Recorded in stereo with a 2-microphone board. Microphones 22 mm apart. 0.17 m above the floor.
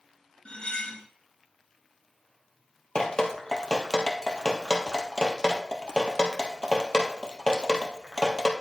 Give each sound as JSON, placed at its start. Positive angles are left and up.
{"t": 0.5, "sound": "cutlery clinking", "side_deg": 55, "distance_m": 1.4}
{"t": 3.0, "sound": "dripping", "side_deg": 30, "distance_m": 1.4}